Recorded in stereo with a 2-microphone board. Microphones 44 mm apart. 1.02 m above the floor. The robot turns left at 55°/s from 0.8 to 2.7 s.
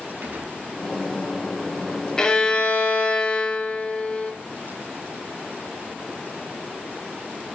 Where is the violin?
15° left (ahead or behind), 0.7 m; by 4.3 s 25° left (ahead or behind), 0.7 m.